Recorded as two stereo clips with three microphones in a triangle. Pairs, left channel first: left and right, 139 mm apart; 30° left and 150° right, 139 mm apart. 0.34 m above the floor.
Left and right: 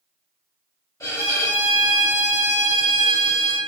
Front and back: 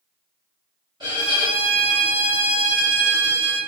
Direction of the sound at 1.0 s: 155° left.